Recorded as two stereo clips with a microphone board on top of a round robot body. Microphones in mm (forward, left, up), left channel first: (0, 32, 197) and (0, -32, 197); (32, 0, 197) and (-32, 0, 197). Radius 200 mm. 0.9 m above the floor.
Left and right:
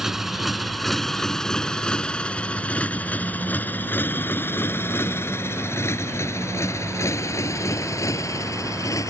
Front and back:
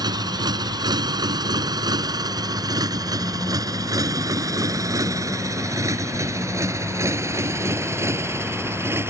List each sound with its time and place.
0.0 s a motorcycle: 175° right; by 9.1 s 130° left